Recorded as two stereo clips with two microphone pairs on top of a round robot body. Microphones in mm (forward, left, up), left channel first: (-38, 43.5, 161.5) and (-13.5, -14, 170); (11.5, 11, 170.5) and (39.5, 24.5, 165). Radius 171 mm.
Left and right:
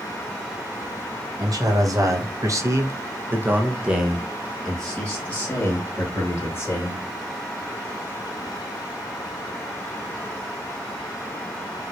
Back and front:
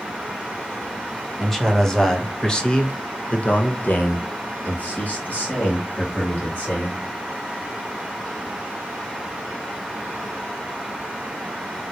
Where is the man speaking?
65° right, 1.7 m; by 7.0 s 160° left, 2.5 m.